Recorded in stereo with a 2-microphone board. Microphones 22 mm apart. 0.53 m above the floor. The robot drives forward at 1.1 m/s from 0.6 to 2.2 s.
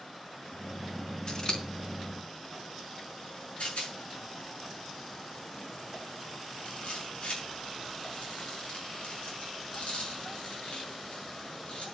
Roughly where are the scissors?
Left.